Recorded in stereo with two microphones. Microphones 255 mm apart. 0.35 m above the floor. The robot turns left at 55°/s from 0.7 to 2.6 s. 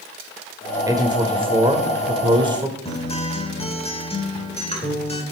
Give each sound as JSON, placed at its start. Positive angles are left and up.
{"t": 0.9, "sound": "a man speaking", "side_deg": -10, "distance_m": 1.0}
{"t": 2.9, "sound": "a guitar", "side_deg": 25, "distance_m": 1.2}